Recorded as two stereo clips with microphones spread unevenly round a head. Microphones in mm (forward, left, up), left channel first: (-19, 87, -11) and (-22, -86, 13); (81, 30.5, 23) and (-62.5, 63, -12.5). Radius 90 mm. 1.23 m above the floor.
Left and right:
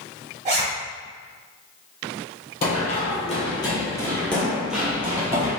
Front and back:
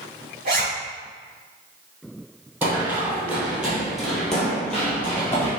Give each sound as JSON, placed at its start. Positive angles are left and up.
{"t": 0.5, "sound": "a zipper", "azimuth_deg": -140, "distance_m": 1.5}
{"t": 2.6, "sound": "running footsteps", "azimuth_deg": 80, "distance_m": 1.5}